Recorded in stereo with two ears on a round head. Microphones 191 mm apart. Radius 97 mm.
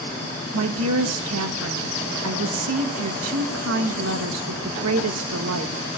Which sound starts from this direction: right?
A woman speaking, at 0.5 s.